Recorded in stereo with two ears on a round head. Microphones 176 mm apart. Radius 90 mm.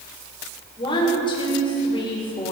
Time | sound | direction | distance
0.8 | a woman speaking | 25° left (ahead or behind) | 6.5 m